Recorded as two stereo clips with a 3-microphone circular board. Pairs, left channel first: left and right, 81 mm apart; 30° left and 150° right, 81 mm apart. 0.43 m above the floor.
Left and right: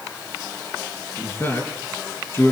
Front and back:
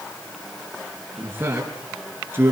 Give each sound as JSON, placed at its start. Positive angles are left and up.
{"t": 1.2, "sound": "a man speaking", "azimuth_deg": 150, "distance_m": 5.0}